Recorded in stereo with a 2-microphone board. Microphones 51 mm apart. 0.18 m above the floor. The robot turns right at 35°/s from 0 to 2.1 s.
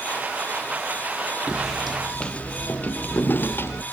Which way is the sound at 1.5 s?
15° right (ahead or behind).